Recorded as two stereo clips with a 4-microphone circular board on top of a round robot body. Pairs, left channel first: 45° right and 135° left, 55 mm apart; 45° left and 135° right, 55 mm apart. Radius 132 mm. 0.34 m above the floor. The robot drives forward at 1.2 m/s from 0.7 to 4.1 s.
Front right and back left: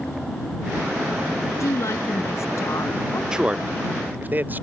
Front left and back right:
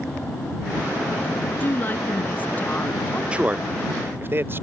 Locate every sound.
1.6 s a woman speaking: 15° right; by 3.2 s 20° right
3.3 s a man speaking: 170° right; by 4.6 s 175° right